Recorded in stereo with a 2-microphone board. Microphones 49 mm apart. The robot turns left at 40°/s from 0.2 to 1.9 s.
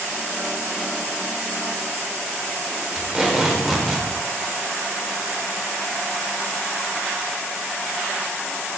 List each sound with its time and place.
3.0 s tape being pulled: 5° right (ahead or behind), 1.4 m